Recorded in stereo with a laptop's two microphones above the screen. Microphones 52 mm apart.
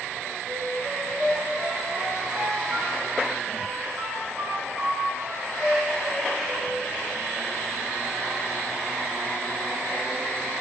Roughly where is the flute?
Right.